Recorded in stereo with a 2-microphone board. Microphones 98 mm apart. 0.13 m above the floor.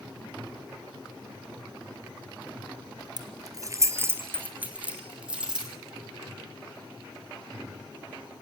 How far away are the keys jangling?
About 1.5 m.